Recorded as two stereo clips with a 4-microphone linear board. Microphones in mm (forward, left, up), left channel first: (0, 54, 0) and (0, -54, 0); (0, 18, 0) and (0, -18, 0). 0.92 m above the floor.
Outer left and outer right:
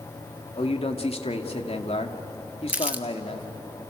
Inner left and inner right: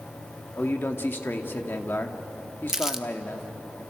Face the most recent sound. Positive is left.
turn(degrees=-15)  # may be behind; listen again after turning